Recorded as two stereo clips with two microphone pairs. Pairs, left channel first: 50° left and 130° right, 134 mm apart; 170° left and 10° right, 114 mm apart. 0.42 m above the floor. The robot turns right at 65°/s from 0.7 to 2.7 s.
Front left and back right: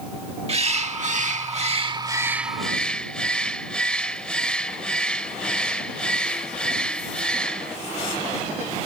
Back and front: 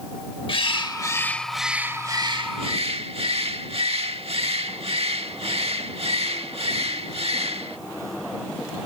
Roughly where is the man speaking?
No man speaking in this recording.